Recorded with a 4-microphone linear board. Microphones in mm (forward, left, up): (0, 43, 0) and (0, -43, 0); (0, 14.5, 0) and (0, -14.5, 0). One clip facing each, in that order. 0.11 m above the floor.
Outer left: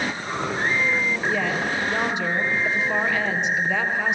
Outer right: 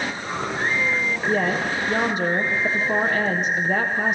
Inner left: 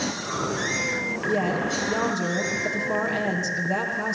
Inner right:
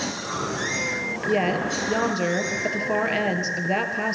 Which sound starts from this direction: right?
A woman speaking, at 1.3 s.